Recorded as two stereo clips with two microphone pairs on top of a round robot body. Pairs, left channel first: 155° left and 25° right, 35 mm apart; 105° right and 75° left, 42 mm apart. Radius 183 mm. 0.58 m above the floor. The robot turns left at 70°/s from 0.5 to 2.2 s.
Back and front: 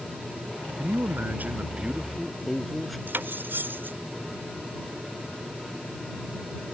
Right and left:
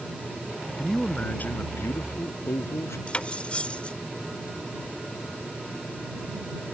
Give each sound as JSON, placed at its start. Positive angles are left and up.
{"t": 0.8, "sound": "a man speaking", "azimuth_deg": -15}
{"t": 3.1, "sound": "cutlery clinking", "azimuth_deg": -45}